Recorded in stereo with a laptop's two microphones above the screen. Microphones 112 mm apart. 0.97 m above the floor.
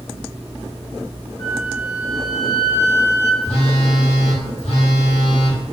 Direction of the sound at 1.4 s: 45° left (ahead or behind).